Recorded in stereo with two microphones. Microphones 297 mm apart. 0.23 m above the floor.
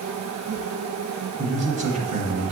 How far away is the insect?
About 1.2 m.